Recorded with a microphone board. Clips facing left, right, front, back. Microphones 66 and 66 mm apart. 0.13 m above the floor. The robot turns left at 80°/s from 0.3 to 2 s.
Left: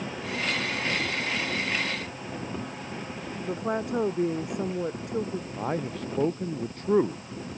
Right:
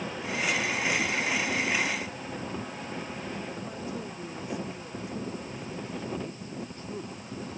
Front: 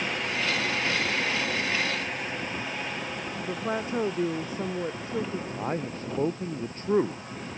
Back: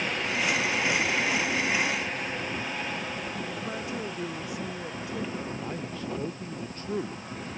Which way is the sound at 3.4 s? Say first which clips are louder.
Left 8 dB, front 4 dB; 55° left.